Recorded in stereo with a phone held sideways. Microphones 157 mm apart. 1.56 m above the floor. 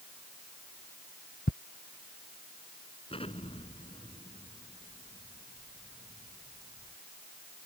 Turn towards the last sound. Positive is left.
turn(degrees=35)  # may be behind; listen again after turning